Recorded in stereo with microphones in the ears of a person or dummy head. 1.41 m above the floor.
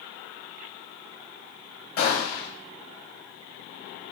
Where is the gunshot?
60° left (ahead or behind), 2.0 m.